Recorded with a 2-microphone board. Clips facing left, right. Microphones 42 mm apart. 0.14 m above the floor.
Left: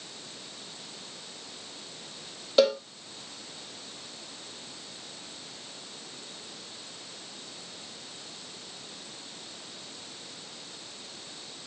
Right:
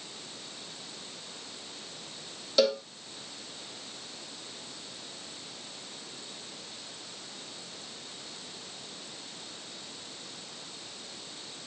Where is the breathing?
No breathing in this recording.